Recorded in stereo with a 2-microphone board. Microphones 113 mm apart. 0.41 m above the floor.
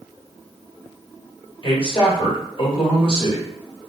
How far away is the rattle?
I don't hear a rattle.